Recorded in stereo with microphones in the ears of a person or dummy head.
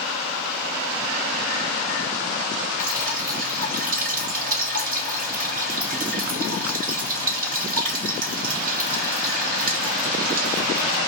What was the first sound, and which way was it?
Dripping, 45° right (ahead or behind).